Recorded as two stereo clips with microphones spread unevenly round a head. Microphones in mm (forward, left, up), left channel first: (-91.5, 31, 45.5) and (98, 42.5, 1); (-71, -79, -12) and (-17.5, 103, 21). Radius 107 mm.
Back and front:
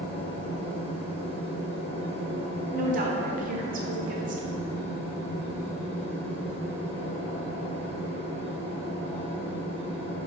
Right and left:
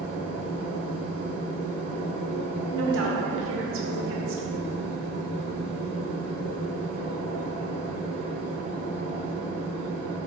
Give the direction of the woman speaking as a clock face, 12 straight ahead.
11 o'clock.